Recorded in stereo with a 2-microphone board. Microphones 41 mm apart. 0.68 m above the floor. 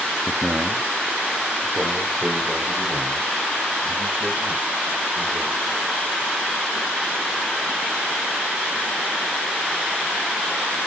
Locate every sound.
0.3 s a man speaking: 15° right (ahead or behind), 0.5 m; by 5.8 s 80° right, 4.5 m